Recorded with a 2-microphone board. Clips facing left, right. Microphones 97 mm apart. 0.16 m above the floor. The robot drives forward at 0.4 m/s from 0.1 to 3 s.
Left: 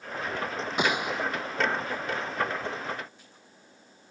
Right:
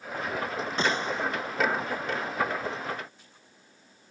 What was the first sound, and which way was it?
A gunshot, 15° left (ahead or behind).